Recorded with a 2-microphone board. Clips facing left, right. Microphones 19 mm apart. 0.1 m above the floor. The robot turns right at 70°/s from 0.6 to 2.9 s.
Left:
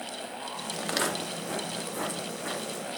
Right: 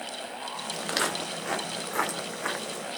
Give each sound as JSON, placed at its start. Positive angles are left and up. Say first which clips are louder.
{"t": 0.8, "sound": "footsteps", "louder": "right 1 dB", "side_deg": 0, "distance_m": 1.8}